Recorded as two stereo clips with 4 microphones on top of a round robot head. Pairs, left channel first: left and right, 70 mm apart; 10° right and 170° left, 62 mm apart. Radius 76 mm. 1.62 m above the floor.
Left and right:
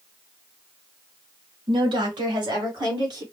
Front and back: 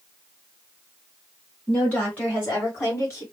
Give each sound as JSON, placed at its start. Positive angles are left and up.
{"t": 1.7, "sound": "a woman speaking", "azimuth_deg": -85, "distance_m": 2.0}